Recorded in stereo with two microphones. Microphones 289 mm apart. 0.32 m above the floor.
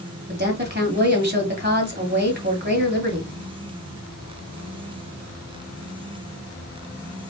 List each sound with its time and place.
0.3 s a woman speaking: 35° right (ahead or behind), 1.7 m